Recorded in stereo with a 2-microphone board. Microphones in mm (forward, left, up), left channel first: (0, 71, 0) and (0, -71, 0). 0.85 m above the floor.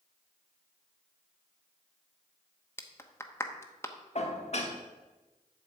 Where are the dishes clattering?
50° left (ahead or behind), 1.4 m.